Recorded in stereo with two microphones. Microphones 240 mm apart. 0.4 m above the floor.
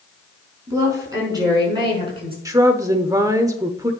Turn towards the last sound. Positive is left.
turn(degrees=-15)  # may be behind; listen again after turning